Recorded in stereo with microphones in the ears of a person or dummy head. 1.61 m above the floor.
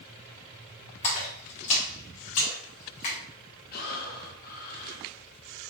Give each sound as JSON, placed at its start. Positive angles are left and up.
{"t": 1.0, "sound": "a splash", "side_deg": 35, "distance_m": 1.6}
{"t": 3.7, "sound": "breathing", "side_deg": 55, "distance_m": 1.0}